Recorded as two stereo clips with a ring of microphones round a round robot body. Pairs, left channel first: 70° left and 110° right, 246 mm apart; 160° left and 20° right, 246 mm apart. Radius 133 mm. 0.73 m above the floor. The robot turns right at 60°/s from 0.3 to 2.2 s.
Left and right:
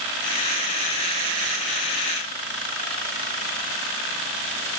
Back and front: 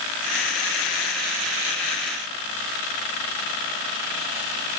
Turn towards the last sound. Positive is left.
No sound to turn to.